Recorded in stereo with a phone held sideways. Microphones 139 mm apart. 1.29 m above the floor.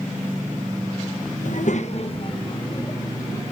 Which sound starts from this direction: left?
A child speaking, at 1.4 s.